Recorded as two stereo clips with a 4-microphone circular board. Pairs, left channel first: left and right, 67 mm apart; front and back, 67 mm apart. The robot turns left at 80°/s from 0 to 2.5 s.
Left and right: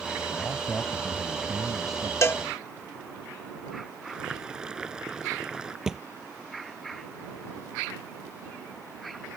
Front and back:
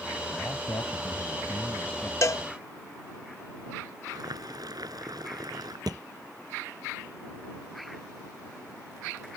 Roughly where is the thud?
Behind.